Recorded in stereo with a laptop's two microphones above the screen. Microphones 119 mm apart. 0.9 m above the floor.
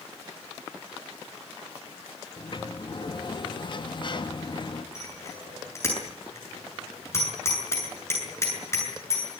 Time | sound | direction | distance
2.4 | a sliding door | 45° left (ahead or behind) | 1.2 m
5.0 | a bicycle bell | 25° left (ahead or behind) | 8 m